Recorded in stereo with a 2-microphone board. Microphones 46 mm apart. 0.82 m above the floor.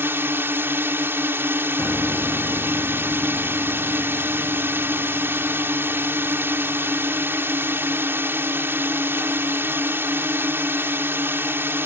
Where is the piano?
70° left (ahead or behind).